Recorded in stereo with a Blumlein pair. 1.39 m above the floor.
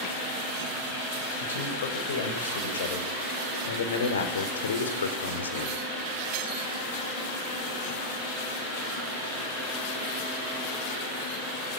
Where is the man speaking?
60° left, 6.5 m; by 5.8 s 70° left, 4 m.